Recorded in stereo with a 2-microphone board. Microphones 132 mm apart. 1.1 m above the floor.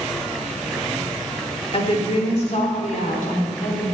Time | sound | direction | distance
1.7 | a woman speaking | 40° left (ahead or behind) | 2 m